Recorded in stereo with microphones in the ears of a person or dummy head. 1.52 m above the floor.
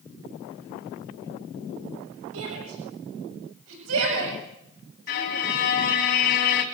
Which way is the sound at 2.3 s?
75° right (ahead or behind).